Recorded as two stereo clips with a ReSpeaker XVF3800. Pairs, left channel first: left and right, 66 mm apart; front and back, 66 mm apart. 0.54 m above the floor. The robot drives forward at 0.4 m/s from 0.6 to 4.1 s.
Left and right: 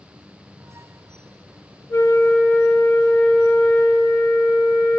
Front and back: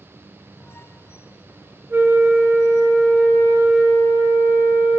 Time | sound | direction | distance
1.9 | a flute | 125° left | 0.5 m